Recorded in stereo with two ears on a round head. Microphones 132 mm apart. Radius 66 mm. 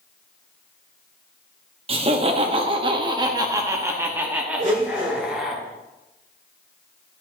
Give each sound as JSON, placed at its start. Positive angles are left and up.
{"t": 1.9, "sound": "laughter", "side_deg": -40, "distance_m": 1.2}
{"t": 4.6, "sound": "a blender", "side_deg": -60, "distance_m": 3.5}